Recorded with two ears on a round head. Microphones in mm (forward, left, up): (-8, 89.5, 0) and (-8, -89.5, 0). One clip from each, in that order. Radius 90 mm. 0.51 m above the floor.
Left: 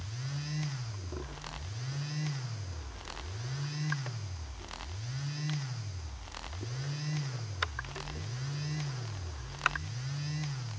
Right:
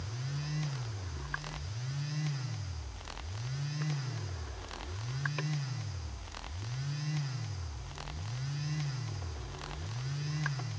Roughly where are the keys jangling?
I don't hear keys jangling.